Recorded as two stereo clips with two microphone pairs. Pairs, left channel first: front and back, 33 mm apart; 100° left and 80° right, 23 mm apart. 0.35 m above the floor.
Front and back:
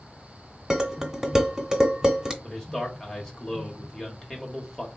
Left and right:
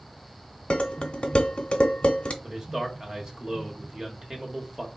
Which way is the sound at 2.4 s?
65° right.